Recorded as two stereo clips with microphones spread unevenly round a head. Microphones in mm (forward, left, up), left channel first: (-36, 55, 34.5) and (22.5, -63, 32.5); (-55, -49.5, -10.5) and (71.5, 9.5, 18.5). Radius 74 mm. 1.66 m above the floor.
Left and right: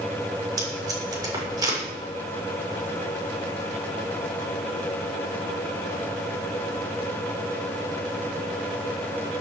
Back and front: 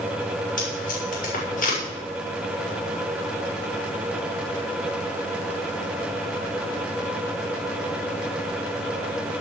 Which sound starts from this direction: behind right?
Tape being pulled, at 0.6 s.